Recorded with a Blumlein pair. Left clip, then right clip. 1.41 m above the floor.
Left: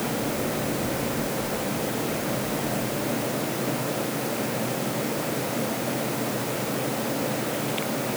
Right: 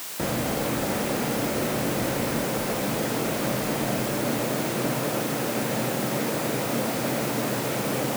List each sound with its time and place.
Only background noise.